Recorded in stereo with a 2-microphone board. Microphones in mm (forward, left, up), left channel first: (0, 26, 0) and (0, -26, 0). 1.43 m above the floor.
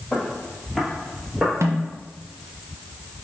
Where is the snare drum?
60° right (ahead or behind), 0.6 m.